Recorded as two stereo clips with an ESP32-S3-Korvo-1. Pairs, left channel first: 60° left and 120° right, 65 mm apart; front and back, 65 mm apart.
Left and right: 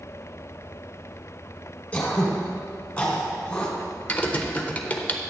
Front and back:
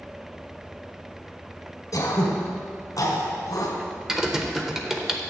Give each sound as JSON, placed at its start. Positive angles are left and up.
{"t": 1.9, "sound": "throat clearing", "azimuth_deg": -10, "distance_m": 1.6}
{"t": 4.1, "sound": "typing on a keyboard", "azimuth_deg": 105, "distance_m": 0.7}